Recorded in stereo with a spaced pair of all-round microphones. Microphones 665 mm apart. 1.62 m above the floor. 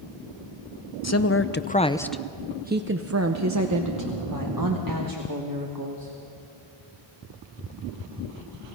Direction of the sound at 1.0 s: 25° left (ahead or behind).